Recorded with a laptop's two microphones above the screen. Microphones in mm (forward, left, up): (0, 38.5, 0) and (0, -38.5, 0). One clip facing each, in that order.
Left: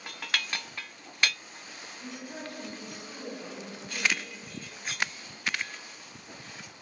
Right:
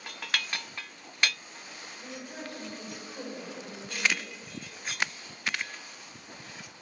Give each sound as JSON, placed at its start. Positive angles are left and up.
{"t": 2.0, "sound": "a woman speaking", "side_deg": 20, "distance_m": 2.5}